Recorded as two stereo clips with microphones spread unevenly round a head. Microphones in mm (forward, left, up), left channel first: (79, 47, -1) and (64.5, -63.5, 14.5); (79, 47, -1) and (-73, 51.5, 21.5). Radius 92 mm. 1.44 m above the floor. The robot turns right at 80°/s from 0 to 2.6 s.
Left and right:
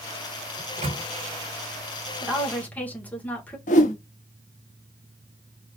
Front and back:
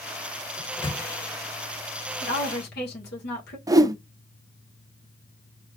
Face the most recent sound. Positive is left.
turn(degrees=110)